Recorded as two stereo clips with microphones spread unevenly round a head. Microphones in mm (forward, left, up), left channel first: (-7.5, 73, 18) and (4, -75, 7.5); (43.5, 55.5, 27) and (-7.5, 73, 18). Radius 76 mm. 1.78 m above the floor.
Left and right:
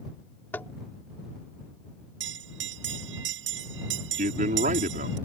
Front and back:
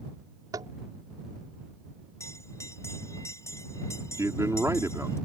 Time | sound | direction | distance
0.5 | tapping | 170° left | ?
2.2 | a bell | 85° right | ?
4.2 | a man speaking | 130° right | ?